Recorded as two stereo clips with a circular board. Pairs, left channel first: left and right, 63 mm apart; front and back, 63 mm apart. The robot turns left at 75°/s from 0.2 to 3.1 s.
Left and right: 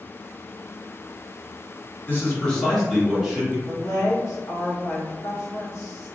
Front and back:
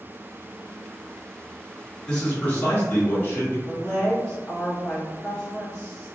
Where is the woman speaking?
80° left, 1.1 m.